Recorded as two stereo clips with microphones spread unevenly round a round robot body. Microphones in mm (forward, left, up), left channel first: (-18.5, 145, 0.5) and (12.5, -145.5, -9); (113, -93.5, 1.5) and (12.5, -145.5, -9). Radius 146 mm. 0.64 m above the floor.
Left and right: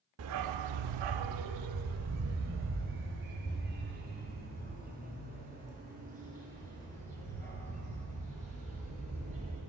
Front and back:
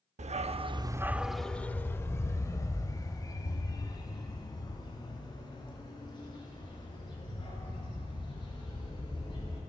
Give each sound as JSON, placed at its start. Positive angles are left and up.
{"t": 0.2, "sound": "a dog barking", "azimuth_deg": -130, "distance_m": 0.6}